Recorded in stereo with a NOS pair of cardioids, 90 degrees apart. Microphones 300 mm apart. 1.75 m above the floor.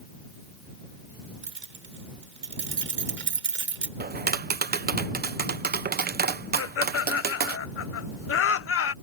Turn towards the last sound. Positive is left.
turn(degrees=45)